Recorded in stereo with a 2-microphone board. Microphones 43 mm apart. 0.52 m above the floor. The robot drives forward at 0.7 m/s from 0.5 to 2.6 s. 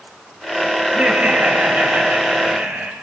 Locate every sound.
0.9 s laughter: 35° right (ahead or behind), 3 m; by 2.9 s 50° right (ahead or behind), 2.5 m